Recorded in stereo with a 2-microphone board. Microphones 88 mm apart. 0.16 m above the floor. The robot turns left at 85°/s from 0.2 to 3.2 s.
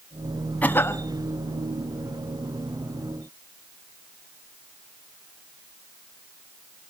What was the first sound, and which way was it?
A cough, 150° left.